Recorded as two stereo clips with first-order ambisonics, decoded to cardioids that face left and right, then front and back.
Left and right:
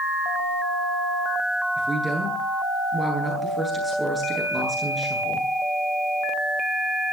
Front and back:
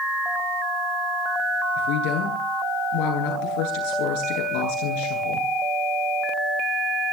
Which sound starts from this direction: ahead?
A woman speaking, at 1.8 s.